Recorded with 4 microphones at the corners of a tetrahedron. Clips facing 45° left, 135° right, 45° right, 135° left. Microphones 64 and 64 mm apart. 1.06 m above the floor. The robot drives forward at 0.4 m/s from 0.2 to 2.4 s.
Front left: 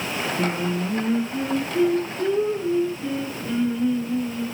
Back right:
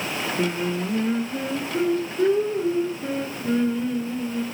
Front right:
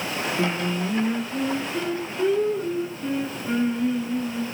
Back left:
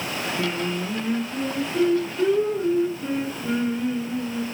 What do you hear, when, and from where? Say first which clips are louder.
0.4 s singing: even, front right 2 dB; 110° right, 0.9 m; by 4.5 s 155° right, 1.3 m